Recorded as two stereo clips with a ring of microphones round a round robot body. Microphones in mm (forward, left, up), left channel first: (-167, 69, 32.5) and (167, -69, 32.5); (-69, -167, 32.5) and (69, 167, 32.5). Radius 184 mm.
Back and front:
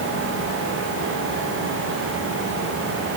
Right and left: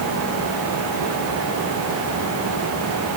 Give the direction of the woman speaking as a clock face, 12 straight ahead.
I don't hear a woman speaking.